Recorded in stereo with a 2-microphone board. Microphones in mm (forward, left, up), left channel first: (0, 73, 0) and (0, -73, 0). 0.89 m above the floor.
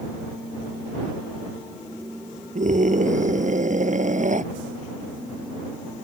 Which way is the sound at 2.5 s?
60° right (ahead or behind).